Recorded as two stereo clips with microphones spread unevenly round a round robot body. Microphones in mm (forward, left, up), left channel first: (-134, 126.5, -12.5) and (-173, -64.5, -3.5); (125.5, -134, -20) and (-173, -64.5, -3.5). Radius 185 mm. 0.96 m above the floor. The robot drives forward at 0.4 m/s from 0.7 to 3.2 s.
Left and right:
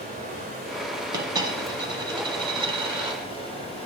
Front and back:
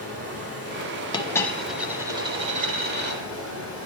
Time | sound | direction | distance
0.0 | running water | 150° right | 4 m
1.1 | a dropped coin | 75° right | 0.8 m